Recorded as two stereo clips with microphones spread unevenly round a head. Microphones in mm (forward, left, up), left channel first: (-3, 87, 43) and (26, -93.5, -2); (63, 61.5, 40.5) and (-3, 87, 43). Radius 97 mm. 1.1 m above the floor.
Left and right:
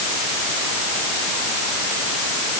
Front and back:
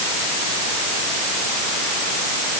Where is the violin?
I don't hear a violin.